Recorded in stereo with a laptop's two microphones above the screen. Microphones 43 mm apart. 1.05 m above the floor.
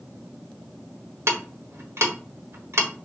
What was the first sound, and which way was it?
Ticking, 85° right.